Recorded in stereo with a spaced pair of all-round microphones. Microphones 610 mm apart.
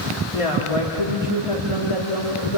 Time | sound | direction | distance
0.3 | a woman speaking | 55° left (ahead or behind) | 3 m